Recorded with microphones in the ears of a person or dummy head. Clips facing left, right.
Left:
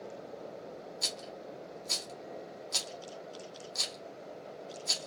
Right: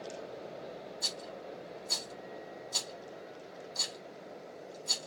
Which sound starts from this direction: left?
A rattle, at 1.0 s.